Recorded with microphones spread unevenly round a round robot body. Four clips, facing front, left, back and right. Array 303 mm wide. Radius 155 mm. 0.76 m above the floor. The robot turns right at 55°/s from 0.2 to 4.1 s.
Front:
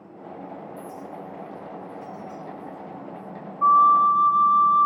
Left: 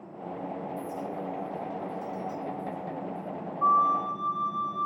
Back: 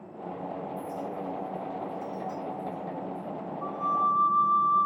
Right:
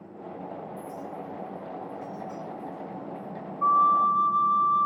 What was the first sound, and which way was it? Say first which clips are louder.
A clink: left 3 dB, back 2 dB; 45° left.